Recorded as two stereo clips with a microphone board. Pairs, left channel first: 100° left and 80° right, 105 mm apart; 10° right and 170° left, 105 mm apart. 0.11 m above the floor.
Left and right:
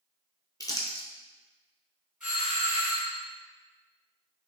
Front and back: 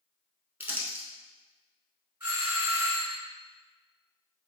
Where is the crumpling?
110° left, 0.7 m.